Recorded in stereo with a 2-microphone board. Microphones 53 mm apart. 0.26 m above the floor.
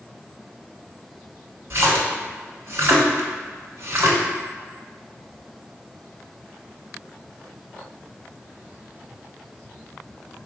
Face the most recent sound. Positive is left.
turn(degrees=-55)  # may be behind; listen again after turning